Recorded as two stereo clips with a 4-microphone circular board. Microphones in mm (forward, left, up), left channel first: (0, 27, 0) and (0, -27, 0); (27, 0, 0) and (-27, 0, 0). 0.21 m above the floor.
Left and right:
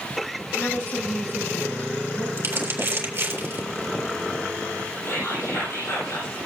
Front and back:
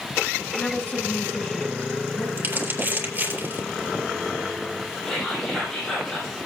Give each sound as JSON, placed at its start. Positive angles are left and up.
{"t": 0.6, "sound": "a woman speaking", "azimuth_deg": 45, "distance_m": 1.8}
{"t": 2.4, "sound": "crumpling", "azimuth_deg": -130, "distance_m": 3.5}
{"t": 5.0, "sound": "whispering", "azimuth_deg": 75, "distance_m": 7.5}